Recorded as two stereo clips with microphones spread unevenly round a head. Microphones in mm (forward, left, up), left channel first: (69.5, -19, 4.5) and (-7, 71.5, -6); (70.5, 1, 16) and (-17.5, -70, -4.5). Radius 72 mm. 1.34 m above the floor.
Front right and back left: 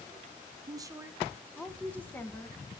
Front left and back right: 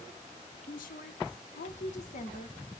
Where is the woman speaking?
75° left, 0.6 m; by 2.6 s 20° left, 1.2 m.